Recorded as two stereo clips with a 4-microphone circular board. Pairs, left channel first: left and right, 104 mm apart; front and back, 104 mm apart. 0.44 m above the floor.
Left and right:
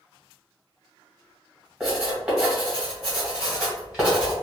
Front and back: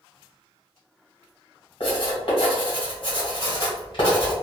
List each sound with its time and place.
1.8 s writing: 10° right, 1.6 m